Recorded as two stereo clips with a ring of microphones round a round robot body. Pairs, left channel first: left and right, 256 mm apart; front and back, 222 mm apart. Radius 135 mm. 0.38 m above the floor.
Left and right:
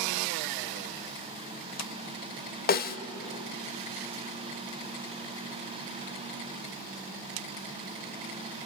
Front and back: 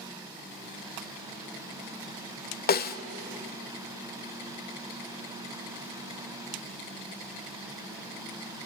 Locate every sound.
2.7 s a snare drum: 40° left, 1.2 m